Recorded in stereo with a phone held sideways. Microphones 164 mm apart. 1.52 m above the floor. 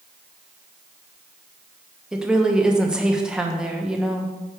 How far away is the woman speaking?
About 1.0 m.